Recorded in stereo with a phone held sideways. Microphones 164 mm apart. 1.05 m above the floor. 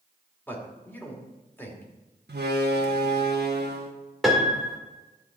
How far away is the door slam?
About 1.1 m.